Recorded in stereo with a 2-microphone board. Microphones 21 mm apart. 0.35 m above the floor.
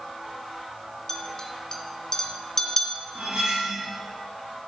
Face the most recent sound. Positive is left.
turn(degrees=-70)  # may be behind; listen again after turning